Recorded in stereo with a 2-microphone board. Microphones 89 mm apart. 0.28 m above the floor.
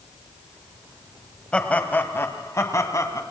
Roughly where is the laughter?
Centre.